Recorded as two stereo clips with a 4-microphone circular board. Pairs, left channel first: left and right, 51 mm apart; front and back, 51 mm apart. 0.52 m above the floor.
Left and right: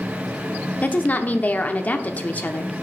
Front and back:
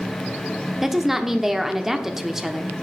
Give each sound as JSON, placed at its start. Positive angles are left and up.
{"t": 0.8, "sound": "a woman speaking", "azimuth_deg": 105, "distance_m": 1.0}